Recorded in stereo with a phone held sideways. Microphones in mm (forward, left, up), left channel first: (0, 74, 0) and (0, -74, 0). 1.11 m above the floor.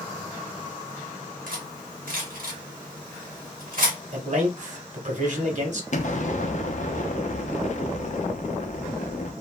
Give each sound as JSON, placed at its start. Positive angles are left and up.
{"t": 1.5, "sound": "cutlery clinking", "side_deg": -75, "distance_m": 1.2}
{"t": 4.1, "sound": "a man speaking", "side_deg": -55, "distance_m": 1.2}
{"t": 5.9, "sound": "an explosion", "side_deg": 55, "distance_m": 0.6}